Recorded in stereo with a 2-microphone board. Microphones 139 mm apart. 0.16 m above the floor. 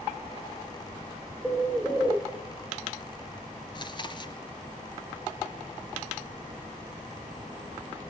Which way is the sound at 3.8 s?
35° left (ahead or behind).